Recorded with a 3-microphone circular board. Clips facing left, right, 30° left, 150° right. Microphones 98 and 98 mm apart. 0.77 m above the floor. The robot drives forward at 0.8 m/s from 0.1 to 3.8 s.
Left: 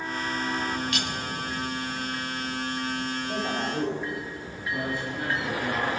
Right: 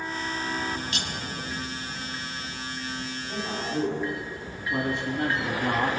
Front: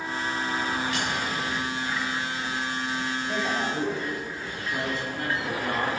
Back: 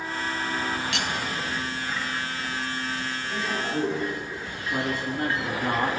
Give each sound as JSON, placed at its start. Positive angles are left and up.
{"t": 0.9, "sound": "cutlery clinking", "azimuth_deg": -150, "distance_m": 0.8}
{"t": 3.3, "sound": "a man speaking", "azimuth_deg": 65, "distance_m": 4.5}
{"t": 4.7, "sound": "a man speaking", "azimuth_deg": -95, "distance_m": 1.0}